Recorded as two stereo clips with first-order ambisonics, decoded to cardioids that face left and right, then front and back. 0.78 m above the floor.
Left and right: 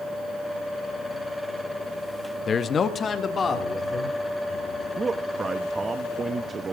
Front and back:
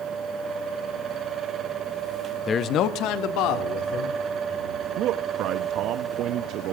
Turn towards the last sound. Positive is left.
turn(degrees=-160)